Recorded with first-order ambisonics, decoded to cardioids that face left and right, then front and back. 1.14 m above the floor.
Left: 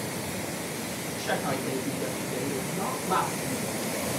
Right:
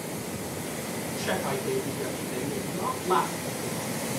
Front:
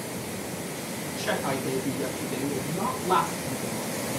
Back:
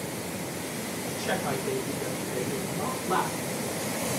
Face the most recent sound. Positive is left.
turn(degrees=5)